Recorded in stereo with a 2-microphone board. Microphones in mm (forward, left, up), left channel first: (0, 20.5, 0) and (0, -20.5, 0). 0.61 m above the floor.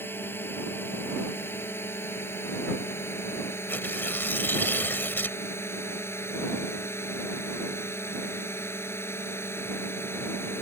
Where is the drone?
65° left (ahead or behind); by 10.6 s 70° left (ahead or behind).